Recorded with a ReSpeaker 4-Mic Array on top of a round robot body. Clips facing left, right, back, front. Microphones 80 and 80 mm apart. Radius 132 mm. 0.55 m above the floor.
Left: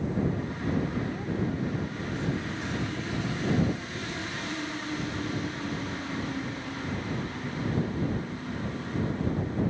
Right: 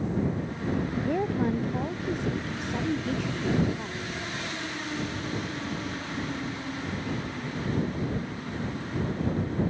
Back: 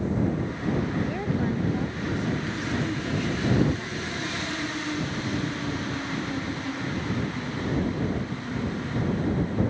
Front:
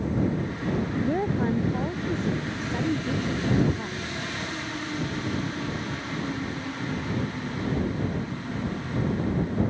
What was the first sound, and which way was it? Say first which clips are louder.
A woman speaking: right 5 dB, front 2 dB; 55° right.